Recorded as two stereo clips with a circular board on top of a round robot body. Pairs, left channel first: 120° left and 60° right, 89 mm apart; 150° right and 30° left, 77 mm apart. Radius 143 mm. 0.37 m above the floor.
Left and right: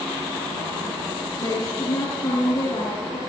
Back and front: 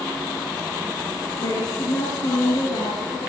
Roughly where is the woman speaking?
Behind.